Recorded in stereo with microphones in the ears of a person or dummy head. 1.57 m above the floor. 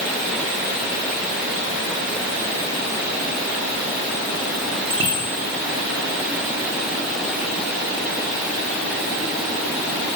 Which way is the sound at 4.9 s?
25° right (ahead or behind).